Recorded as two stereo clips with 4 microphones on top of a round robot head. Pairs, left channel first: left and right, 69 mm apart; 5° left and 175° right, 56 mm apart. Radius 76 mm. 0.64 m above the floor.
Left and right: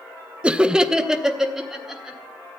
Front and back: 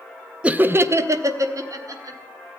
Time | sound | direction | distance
0.4 | laughter | 140° right | 0.5 m